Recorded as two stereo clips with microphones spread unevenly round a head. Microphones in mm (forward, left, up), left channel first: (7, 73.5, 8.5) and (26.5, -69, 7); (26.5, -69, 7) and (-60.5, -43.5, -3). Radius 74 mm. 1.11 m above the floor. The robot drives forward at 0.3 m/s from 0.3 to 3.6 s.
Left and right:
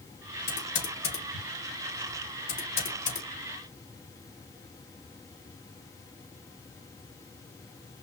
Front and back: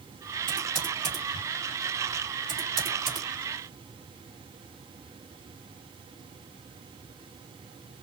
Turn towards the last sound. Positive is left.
turn(degrees=120)